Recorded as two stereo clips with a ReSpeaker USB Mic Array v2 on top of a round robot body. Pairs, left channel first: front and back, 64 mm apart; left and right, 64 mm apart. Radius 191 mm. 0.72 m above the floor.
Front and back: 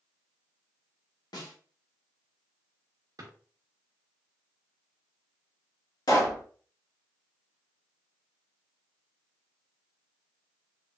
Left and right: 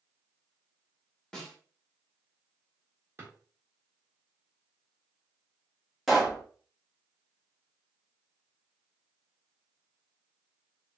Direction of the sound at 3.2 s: 150° right.